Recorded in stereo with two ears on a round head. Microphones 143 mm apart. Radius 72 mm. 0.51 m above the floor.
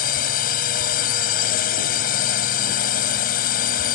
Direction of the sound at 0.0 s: 60° left (ahead or behind).